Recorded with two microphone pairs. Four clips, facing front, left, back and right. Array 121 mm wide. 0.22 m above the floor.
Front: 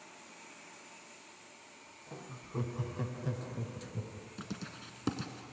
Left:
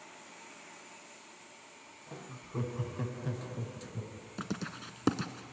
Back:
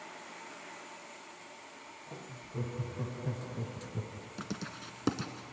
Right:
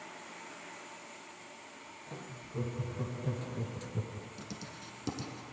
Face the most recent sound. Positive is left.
turn(degrees=115)